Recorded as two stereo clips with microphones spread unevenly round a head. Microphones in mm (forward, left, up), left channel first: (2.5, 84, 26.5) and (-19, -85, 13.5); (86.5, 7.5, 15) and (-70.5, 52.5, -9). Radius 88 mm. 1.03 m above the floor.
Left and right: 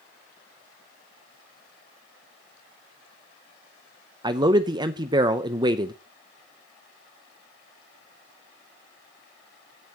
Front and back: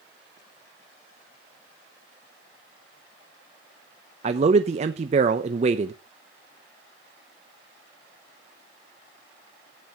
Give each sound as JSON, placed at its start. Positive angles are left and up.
{"t": 4.2, "sound": "a man speaking", "azimuth_deg": -155, "distance_m": 0.6}